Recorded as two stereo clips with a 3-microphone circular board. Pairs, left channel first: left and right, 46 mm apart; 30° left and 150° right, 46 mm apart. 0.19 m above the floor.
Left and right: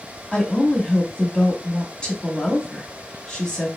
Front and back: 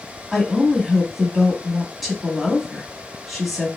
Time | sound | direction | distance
0.3 | a woman speaking | 120° left | 1.0 m